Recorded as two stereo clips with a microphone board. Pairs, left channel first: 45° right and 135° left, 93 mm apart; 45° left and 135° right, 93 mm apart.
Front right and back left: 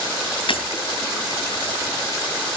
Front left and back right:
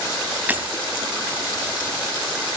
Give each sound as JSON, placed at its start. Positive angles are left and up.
{"t": 0.5, "sound": "breaking glass", "azimuth_deg": -65, "distance_m": 3.0}